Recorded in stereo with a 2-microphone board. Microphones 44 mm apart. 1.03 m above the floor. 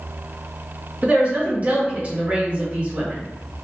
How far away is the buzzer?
I don't hear a buzzer.